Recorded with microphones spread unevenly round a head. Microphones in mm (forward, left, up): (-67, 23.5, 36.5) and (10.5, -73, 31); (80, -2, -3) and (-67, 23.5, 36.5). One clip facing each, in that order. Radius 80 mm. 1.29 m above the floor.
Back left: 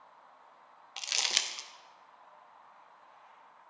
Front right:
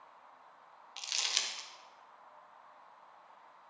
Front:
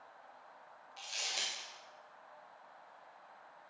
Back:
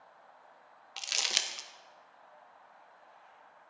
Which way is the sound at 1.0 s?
160° left.